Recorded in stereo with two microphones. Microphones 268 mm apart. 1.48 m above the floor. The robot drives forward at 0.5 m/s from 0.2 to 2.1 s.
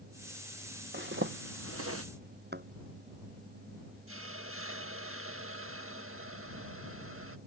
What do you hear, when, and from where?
0.9 s a zipper: 40° right (ahead or behind); by 2.0 s 60° right (ahead or behind)
2.5 s a thud: 40° right (ahead or behind)
4.1 s a hiss: 50° right (ahead or behind)